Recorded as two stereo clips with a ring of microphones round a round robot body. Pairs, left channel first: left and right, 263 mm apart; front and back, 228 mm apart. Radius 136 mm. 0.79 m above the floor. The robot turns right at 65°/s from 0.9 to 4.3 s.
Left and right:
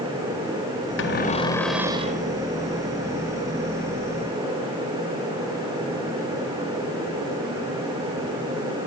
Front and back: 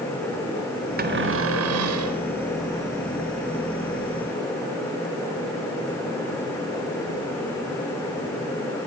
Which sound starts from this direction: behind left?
A cupboard door, at 1.0 s.